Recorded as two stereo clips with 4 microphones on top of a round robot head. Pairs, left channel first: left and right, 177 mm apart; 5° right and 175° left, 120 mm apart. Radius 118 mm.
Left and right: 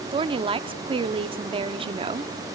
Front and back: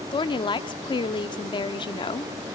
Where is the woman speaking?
40° right, 0.9 m.